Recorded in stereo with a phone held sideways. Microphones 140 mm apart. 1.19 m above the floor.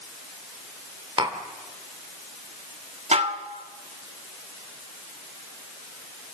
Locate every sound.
1.2 s tapping: 40° right (ahead or behind), 2.5 m
3.1 s dishes clattering: 55° right (ahead or behind), 1.4 m